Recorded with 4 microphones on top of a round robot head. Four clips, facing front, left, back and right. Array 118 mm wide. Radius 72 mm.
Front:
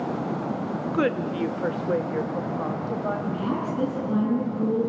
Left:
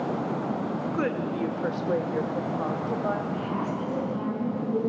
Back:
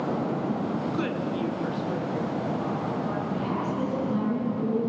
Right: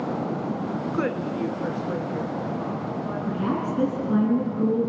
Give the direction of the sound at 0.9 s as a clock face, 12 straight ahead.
12 o'clock.